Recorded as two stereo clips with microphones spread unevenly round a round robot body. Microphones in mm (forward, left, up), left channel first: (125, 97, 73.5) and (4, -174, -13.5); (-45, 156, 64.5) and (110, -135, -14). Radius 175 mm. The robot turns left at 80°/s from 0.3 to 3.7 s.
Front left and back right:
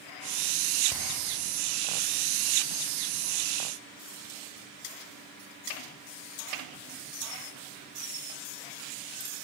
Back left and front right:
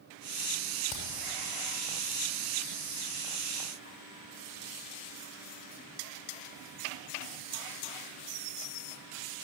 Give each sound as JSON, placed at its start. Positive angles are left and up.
{"t": 0.9, "sound": "hammering", "azimuth_deg": 170, "distance_m": 6.5}